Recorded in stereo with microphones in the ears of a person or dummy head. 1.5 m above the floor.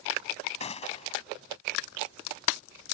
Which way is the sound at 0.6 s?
35° left (ahead or behind).